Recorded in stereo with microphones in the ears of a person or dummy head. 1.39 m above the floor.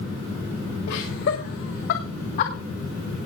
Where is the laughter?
80° left, 3 m; by 2.5 s 55° left (ahead or behind), 2.0 m.